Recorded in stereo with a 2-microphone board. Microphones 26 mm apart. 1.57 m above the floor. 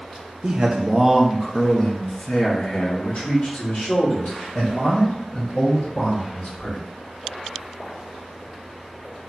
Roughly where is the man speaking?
Right.